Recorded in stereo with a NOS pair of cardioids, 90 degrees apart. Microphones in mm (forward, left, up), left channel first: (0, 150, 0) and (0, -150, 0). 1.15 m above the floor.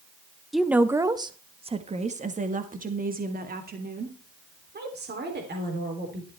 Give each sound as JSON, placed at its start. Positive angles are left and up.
{"t": 0.5, "sound": "a woman speaking", "azimuth_deg": 0, "distance_m": 0.8}